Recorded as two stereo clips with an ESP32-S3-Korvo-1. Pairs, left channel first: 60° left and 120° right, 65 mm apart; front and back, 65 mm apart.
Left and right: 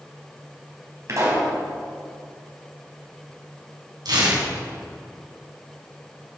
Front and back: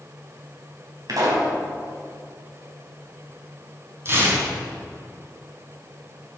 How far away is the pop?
About 4 m.